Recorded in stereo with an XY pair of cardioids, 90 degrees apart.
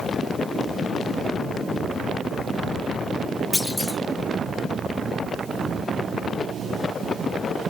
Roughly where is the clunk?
Ahead.